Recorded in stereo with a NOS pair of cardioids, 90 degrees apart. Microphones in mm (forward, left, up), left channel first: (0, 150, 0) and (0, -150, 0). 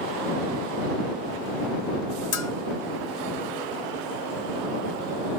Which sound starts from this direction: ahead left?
A bell, at 2.3 s.